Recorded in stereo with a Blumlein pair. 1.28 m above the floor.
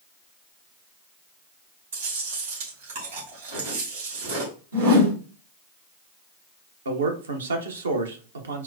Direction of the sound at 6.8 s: 70° right.